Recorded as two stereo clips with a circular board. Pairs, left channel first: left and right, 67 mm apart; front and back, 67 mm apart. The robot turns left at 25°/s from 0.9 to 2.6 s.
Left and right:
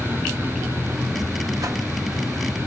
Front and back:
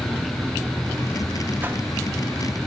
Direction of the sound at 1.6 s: 115° right.